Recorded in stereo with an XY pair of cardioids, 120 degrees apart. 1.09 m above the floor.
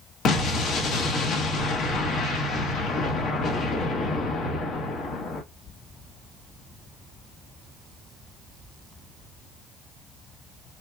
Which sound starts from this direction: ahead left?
An explosion, at 0.2 s.